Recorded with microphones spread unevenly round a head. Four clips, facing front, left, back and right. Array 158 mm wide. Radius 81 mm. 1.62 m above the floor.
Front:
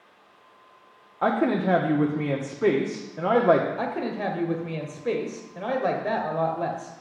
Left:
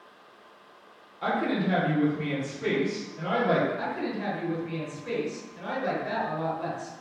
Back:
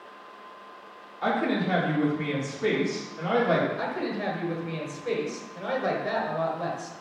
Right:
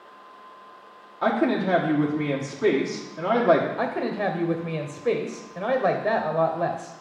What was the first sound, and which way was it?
A woman speaking, 30° right.